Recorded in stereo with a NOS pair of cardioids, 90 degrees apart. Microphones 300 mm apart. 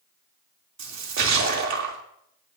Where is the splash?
60° right, 3 m.